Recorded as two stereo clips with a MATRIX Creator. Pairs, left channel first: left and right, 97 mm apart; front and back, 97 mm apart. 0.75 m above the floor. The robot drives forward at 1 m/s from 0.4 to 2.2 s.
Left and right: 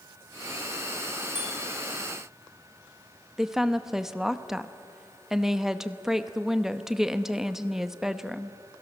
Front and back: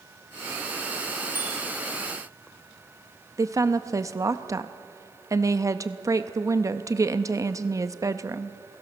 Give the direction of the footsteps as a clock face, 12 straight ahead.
No footsteps in this recording.